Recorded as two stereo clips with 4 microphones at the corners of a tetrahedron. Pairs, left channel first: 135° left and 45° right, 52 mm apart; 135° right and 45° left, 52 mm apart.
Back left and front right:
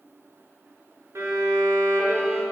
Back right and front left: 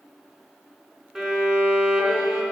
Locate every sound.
1.1 s a violin: 40° right, 0.8 m